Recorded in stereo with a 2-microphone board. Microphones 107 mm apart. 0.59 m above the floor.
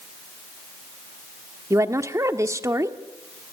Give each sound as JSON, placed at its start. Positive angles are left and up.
{"t": 1.7, "sound": "a woman speaking", "side_deg": -30, "distance_m": 1.2}